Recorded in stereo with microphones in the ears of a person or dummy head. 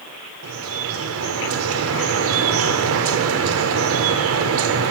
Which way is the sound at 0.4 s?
70° right (ahead or behind).